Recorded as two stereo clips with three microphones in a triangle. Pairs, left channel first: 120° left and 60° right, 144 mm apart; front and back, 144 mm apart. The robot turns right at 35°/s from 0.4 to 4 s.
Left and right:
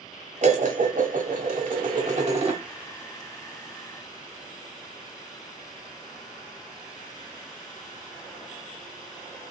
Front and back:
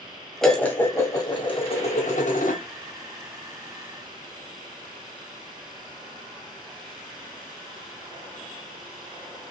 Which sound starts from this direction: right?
Dishes clattering, at 0.4 s.